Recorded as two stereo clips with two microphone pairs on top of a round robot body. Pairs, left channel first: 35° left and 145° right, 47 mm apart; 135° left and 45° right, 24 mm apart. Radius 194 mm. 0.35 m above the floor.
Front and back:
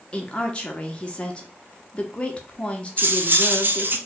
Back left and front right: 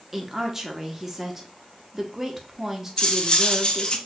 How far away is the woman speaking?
About 0.9 m.